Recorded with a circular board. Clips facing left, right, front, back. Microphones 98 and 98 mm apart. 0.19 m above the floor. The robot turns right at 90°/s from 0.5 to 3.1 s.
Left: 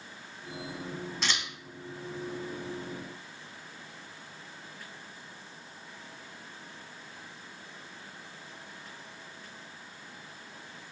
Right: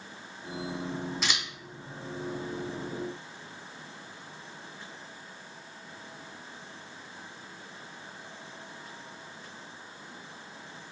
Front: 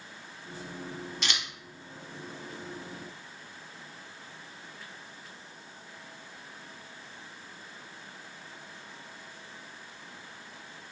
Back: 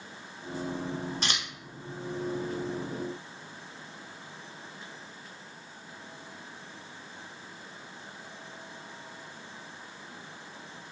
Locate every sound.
1.2 s scissors: 175° right, 0.6 m; by 1.4 s 160° right, 0.6 m